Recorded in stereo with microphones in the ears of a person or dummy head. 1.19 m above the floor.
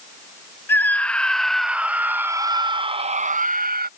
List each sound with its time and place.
0.7 s a scream: 15° left (ahead or behind); by 3.9 s 45° right (ahead or behind)